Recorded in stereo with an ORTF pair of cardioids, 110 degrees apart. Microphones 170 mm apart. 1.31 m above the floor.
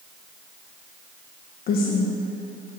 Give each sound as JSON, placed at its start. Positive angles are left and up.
{"t": 1.7, "sound": "a woman speaking", "azimuth_deg": 60, "distance_m": 0.9}